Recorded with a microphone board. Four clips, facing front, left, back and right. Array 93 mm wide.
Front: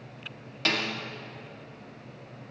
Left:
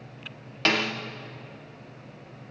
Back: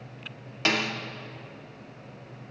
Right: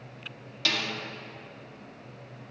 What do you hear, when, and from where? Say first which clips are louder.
0.7 s a snare drum: left 6 dB, back 3 dB; 110° left, 0.8 m